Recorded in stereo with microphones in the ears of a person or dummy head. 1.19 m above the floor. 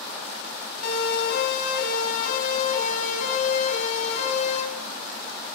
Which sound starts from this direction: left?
A siren, at 0.8 s.